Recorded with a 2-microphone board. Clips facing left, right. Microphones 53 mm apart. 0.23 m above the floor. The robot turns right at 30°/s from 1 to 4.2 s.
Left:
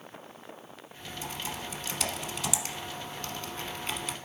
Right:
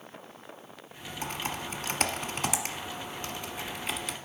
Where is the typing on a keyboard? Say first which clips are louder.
Right 3 dB; 65° right (ahead or behind), 1.0 m; by 4.2 s centre (ahead or behind), 1.0 m.